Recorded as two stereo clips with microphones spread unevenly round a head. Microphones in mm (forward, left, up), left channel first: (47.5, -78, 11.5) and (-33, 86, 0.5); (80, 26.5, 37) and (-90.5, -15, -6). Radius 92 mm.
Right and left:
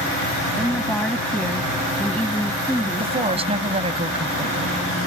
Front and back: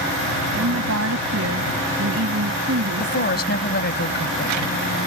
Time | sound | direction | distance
0.6 | a woman speaking | 150° right | ?
3.0 | a woman speaking | 55° left | ?